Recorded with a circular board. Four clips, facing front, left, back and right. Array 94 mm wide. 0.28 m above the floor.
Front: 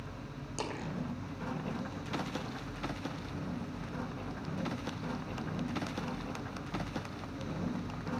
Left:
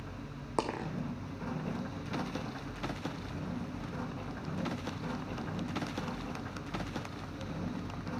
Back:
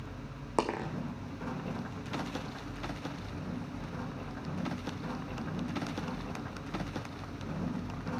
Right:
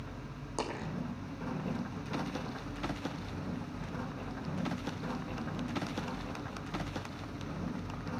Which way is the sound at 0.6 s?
150° left.